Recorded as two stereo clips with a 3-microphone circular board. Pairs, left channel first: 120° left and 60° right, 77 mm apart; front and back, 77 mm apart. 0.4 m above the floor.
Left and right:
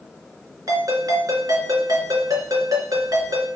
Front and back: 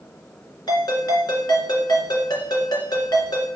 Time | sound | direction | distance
0.7 | a ringtone | 20° right | 2.5 m